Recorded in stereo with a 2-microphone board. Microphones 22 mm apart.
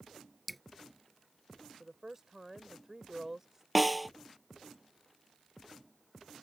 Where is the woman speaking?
20° right (ahead or behind).